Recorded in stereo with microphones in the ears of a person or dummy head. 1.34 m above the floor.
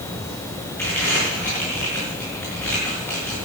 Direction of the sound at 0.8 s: 10° left (ahead or behind).